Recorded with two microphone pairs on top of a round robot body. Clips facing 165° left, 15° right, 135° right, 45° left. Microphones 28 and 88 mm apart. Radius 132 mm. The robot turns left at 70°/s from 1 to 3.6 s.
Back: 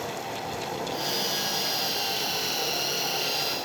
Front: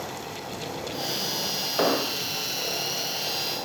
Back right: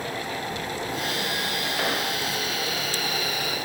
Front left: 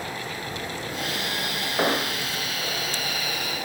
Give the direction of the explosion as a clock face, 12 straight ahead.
1 o'clock.